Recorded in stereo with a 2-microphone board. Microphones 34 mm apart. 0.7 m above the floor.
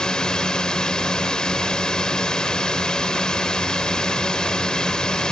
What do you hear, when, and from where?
0.0 s a drone: 25° left (ahead or behind)